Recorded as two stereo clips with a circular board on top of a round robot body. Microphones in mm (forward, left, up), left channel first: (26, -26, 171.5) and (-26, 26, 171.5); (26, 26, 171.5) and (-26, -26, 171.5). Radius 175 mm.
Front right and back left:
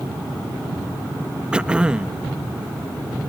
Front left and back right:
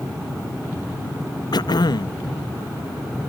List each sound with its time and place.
1.5 s throat clearing: 60° left